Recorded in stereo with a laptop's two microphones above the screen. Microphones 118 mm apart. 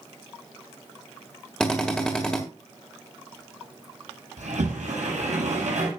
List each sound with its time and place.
1.6 s a drill: 5° left (ahead or behind), 1.7 m
4.4 s a sliding door: 80° right, 8.5 m